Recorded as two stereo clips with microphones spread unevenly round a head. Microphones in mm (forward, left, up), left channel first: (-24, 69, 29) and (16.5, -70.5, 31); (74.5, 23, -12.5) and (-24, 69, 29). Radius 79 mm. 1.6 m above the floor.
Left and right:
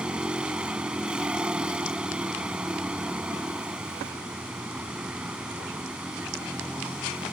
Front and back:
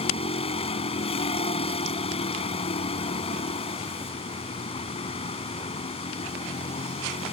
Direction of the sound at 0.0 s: 10° left.